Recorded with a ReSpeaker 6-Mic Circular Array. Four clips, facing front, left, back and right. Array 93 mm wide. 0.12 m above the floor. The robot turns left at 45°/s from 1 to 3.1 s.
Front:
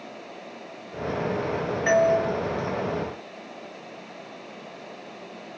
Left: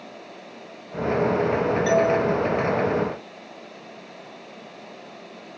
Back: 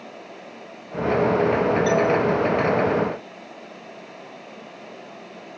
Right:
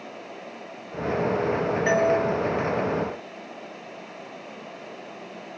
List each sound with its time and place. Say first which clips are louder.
1.9 s a doorbell: left 1 dB, front 4 dB; 40° right, 2.5 m; by 2.2 s 55° right, 2.5 m